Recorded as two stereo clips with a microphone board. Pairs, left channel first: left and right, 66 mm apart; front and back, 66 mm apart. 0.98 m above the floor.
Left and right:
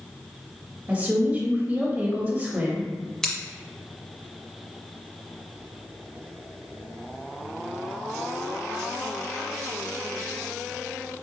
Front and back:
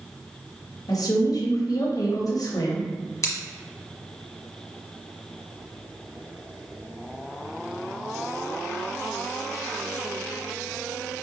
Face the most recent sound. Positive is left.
turn(degrees=10)